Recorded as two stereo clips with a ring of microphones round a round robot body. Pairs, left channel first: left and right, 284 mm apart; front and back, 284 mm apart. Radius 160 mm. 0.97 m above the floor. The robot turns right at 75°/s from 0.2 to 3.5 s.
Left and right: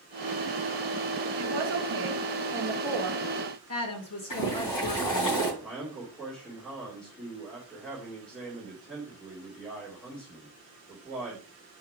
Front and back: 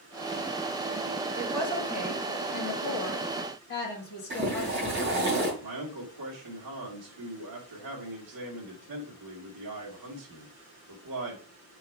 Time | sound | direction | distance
1.4 | a woman speaking | 105° right | 1.5 m
4.3 | boiling | 120° left | 3 m
5.6 | a man speaking | 175° left | 2.0 m